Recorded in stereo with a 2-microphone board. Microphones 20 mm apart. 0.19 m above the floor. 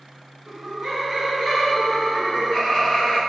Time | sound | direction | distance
0.5 | laughter | 35° right (ahead or behind) | 2.0 m